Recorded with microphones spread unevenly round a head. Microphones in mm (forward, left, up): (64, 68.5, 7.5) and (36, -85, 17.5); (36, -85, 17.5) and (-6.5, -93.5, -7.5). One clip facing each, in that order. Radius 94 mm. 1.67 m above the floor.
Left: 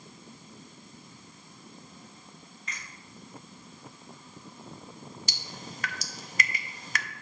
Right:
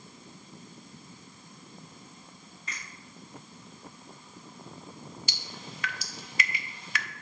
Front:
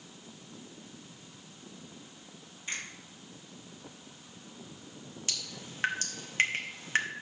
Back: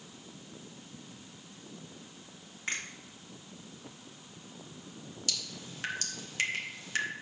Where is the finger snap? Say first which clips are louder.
Right 1 dB, back 3 dB; 165° right, 1.8 m.